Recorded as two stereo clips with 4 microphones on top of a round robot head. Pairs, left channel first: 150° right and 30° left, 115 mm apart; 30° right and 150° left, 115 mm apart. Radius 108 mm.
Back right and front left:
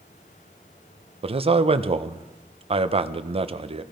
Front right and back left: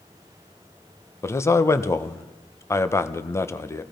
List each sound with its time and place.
1.2 s a man speaking: 30° left, 0.9 m